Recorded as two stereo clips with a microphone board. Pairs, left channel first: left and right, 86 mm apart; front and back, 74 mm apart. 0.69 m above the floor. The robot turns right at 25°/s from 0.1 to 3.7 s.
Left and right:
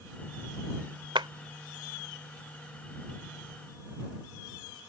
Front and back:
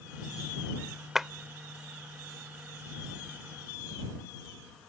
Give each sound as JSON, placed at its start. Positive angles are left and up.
{"t": 1.1, "sound": "a clap", "azimuth_deg": -95}